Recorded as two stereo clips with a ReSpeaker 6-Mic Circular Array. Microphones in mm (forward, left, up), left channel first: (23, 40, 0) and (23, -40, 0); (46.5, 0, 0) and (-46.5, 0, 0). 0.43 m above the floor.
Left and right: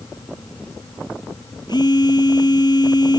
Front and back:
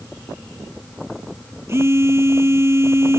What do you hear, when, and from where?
1.7 s a phone buzzing: 120° left